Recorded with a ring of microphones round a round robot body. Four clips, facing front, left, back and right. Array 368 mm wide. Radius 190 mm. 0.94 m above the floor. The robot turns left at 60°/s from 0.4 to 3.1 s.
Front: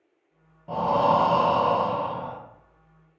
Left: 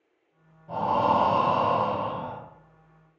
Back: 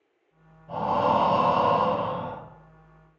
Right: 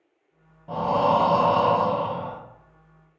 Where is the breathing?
35° right, 0.6 m; by 2.4 s 140° right, 0.6 m.